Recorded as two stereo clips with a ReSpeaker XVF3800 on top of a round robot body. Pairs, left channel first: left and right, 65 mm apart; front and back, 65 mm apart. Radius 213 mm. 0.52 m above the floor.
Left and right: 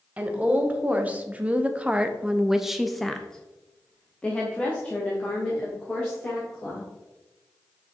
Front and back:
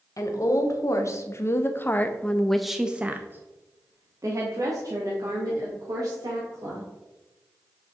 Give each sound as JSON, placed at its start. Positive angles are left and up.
{"t": 0.2, "sound": "a woman speaking", "azimuth_deg": -25, "distance_m": 1.7}